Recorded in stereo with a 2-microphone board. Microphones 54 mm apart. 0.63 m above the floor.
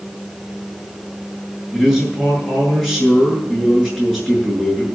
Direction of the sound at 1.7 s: 5° left (ahead or behind).